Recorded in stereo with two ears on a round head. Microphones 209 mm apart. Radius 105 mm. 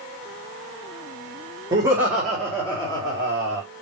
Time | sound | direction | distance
1.7 | laughter | 20° right (ahead or behind) | 1.2 m